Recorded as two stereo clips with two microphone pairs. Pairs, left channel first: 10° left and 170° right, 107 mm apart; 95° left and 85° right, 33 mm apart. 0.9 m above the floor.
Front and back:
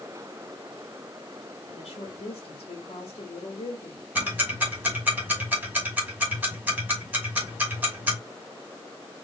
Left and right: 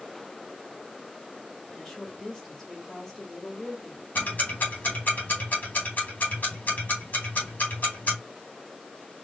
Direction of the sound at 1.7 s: 40° left.